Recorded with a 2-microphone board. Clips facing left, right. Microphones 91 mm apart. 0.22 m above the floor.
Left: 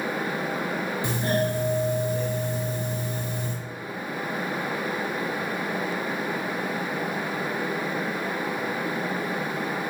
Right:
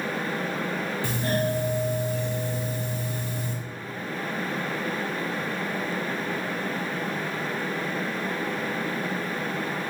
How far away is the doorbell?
About 1.6 m.